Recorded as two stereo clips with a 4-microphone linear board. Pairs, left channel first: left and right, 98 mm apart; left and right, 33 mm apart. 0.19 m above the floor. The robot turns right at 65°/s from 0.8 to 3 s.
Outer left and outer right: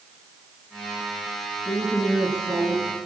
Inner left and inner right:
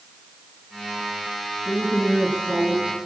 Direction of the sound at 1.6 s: 140° left.